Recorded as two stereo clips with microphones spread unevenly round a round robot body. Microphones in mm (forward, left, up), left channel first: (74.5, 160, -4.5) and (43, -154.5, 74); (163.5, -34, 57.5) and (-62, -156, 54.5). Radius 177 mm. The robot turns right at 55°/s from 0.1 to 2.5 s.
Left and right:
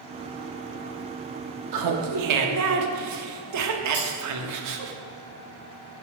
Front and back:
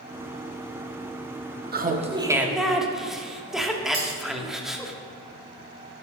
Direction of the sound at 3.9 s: 160° right.